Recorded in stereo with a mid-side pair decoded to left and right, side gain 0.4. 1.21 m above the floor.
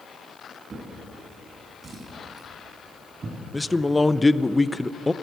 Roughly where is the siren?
No siren in this recording.